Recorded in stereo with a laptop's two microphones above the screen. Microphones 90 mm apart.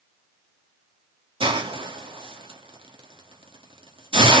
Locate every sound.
1.4 s a hiss: 80° right, 1.5 m